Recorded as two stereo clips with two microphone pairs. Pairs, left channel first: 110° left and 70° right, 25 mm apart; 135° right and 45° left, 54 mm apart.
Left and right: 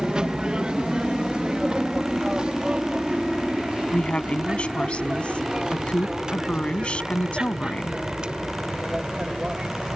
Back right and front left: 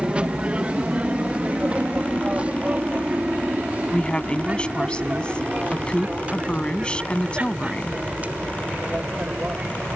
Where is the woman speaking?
155° left.